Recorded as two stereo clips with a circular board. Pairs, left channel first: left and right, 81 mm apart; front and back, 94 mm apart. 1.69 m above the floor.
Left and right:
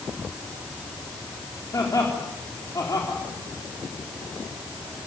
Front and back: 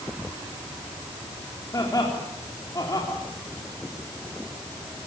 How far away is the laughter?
About 4.5 m.